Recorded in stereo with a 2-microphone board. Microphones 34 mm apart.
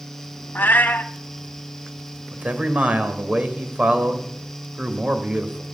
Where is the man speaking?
40° right (ahead or behind), 1.9 m.